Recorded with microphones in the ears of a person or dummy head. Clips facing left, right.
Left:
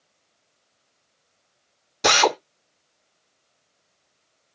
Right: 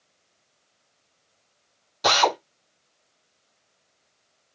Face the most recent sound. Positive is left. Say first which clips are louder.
# left 2 dB
turn(degrees=25)  # may be behind; listen again after turning